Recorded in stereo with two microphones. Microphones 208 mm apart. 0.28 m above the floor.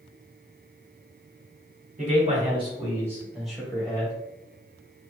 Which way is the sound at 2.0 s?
35° right (ahead or behind).